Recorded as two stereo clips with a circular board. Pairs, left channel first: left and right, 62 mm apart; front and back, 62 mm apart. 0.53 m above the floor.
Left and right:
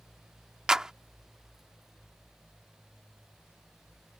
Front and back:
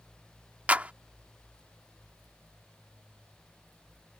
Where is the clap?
155° right.